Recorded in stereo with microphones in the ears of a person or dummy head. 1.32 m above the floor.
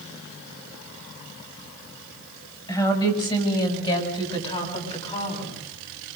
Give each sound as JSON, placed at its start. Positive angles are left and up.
{"t": 2.7, "sound": "a woman speaking", "side_deg": 20, "distance_m": 6.0}